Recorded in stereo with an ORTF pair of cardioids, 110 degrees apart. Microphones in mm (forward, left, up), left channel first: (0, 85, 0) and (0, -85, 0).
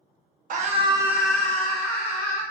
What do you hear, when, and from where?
0.5 s a scream: 55° right, 0.7 m; by 2.4 s 35° left, 1.5 m